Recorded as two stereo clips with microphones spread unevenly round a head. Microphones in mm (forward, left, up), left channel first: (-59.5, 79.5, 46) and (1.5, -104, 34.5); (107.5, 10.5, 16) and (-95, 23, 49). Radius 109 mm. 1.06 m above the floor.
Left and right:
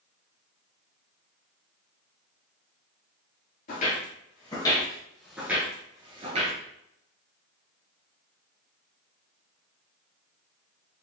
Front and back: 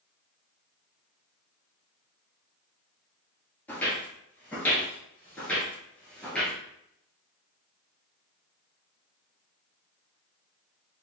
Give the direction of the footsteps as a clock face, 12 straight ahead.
9 o'clock.